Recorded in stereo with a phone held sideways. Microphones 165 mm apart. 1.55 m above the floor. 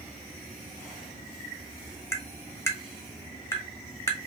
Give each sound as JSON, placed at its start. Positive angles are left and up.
{"t": 2.1, "sound": "tapping", "side_deg": 15, "distance_m": 0.8}